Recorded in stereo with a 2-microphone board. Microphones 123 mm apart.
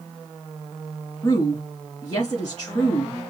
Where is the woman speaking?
30° left (ahead or behind), 3 m.